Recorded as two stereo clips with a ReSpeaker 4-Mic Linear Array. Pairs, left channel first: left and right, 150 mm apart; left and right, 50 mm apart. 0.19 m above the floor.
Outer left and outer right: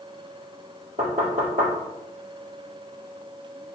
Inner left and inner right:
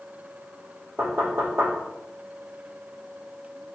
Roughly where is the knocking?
Right.